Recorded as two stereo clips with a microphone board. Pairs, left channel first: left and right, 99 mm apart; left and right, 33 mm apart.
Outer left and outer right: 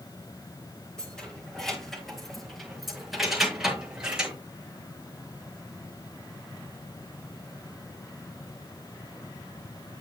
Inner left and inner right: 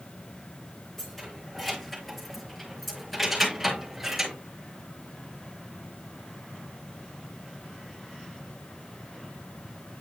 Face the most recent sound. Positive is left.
turn(degrees=-10)  # may be behind; listen again after turning